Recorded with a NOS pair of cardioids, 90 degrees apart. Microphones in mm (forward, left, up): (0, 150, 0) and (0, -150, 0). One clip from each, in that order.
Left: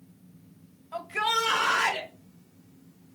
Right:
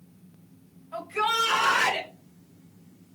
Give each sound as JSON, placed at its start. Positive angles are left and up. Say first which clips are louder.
{"t": 0.9, "sound": "a shout", "louder": "right 1 dB", "azimuth_deg": 25, "distance_m": 1.7}